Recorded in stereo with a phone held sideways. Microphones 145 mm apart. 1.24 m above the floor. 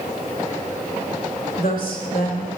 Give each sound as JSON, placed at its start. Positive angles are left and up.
{"t": 1.6, "sound": "a woman speaking", "side_deg": 85, "distance_m": 1.9}